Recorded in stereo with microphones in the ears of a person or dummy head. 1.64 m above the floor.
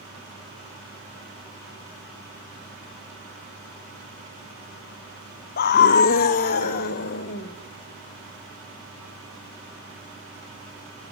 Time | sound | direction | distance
5.6 | a scream | 50° left (ahead or behind) | 0.7 m